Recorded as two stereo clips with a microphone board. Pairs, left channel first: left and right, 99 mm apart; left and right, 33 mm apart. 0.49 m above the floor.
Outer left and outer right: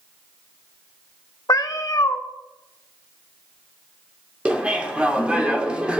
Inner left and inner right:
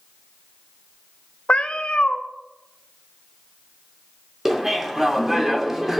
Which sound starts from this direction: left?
A cat meowing, at 1.5 s.